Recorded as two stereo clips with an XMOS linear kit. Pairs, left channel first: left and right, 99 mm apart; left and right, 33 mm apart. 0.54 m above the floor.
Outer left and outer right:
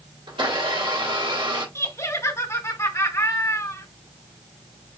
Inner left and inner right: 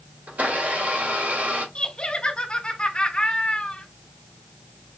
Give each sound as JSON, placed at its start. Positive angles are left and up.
{"t": 0.3, "sound": "a blender", "side_deg": -60, "distance_m": 2.5}
{"t": 1.8, "sound": "laughter", "side_deg": 30, "distance_m": 1.5}